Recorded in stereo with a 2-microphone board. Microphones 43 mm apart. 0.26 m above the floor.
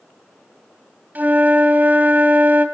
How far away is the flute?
About 2 m.